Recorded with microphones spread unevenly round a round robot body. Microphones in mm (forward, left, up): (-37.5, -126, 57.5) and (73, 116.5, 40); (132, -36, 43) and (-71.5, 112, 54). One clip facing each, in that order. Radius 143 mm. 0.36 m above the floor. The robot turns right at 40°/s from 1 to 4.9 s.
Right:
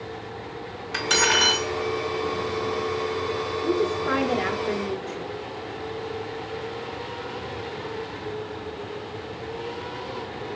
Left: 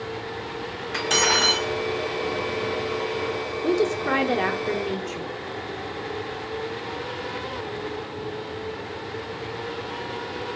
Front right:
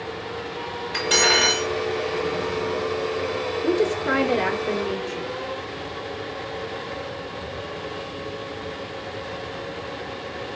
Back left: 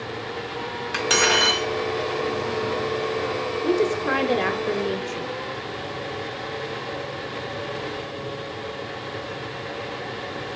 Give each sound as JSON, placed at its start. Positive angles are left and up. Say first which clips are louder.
{"t": 0.9, "sound": "cutlery clinking", "louder": "even, even", "azimuth_deg": 170, "distance_m": 1.6}
{"t": 3.6, "sound": "a woman speaking", "louder": "left 2 dB, even", "azimuth_deg": 35, "distance_m": 0.9}